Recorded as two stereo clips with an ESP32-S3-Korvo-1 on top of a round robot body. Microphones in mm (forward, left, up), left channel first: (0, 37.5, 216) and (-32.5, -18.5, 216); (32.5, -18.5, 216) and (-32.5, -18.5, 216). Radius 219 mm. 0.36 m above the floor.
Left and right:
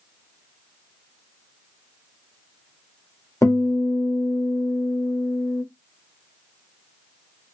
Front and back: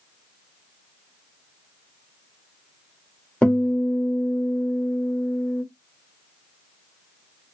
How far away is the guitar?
About 1.9 m.